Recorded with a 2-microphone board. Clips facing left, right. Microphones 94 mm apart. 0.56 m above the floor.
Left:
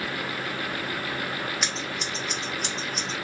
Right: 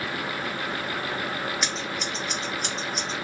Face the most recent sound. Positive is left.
turn(degrees=0)  # may be behind; listen again after turning